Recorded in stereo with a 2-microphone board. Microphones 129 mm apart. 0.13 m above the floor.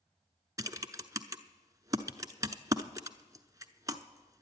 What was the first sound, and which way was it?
Typing on a keyboard, 30° right (ahead or behind).